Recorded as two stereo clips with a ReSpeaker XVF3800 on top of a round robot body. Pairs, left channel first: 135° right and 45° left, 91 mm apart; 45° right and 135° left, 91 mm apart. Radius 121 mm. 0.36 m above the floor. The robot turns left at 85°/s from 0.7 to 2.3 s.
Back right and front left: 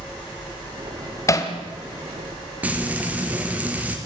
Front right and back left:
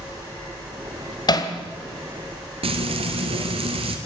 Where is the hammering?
80° right, 2.5 m; by 1.5 s 100° right, 2.5 m.